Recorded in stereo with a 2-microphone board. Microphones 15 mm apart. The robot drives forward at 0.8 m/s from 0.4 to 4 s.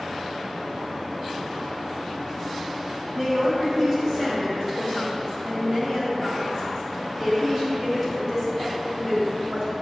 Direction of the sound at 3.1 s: 5° left (ahead or behind).